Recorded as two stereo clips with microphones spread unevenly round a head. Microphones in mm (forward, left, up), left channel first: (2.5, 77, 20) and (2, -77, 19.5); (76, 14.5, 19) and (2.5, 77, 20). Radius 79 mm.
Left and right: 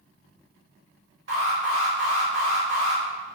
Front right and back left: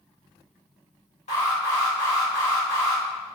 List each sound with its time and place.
1.3 s an alarm: 65° right, 1.4 m